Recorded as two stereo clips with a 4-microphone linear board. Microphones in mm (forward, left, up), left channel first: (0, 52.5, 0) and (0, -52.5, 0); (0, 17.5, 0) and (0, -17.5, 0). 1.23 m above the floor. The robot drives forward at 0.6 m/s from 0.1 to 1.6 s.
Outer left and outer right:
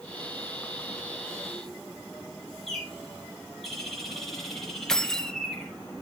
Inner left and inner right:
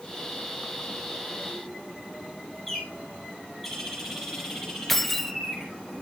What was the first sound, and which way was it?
A bird, centre (ahead or behind).